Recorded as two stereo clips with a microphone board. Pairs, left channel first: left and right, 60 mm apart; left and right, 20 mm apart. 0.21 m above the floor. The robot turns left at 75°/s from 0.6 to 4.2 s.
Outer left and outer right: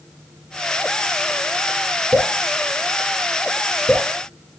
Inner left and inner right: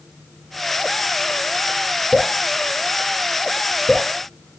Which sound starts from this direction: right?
Dripping, at 2.1 s.